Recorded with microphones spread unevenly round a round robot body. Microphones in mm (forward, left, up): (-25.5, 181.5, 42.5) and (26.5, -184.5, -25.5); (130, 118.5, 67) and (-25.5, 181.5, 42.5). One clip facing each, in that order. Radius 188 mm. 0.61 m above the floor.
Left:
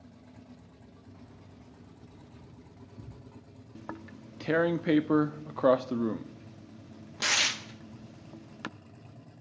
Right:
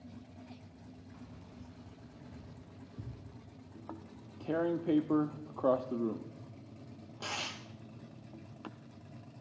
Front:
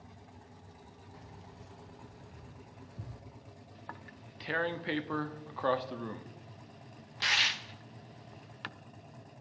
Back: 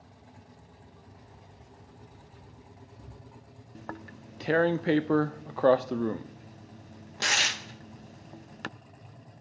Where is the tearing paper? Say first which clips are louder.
Left 5 dB, back 10 dB; 135° left, 0.5 m.